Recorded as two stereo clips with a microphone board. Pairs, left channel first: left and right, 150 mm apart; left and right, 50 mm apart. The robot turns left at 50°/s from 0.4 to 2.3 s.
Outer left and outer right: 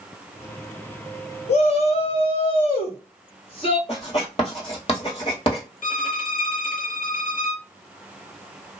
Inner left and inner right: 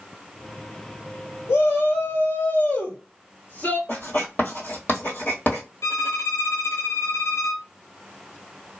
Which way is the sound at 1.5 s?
100° left.